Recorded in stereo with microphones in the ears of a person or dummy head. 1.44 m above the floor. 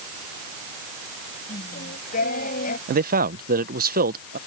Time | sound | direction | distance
1.5 | singing | 50° left (ahead or behind) | ?
2.9 | a man speaking | 55° right (ahead or behind) | ?